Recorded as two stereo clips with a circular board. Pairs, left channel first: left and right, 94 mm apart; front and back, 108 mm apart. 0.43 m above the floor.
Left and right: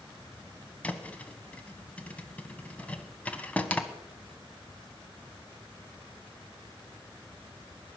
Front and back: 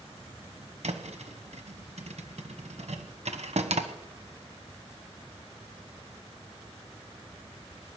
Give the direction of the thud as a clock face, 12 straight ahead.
7 o'clock.